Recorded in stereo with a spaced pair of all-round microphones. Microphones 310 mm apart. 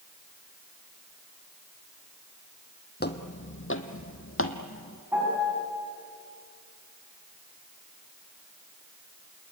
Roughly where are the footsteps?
Left.